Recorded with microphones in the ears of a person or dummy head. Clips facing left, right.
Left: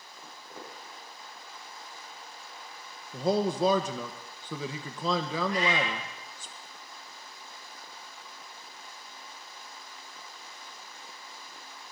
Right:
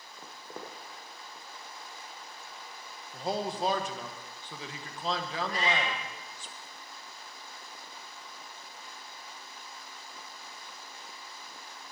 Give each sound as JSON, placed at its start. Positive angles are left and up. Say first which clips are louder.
{"t": 0.2, "sound": "footsteps", "louder": "right 2 dB", "side_deg": -55, "distance_m": 4.0}
{"t": 3.1, "sound": "a man speaking", "louder": "left 6 dB", "side_deg": 75, "distance_m": 1.3}
{"t": 5.5, "sound": "a cat meowing", "louder": "left 1 dB", "side_deg": -30, "distance_m": 5.0}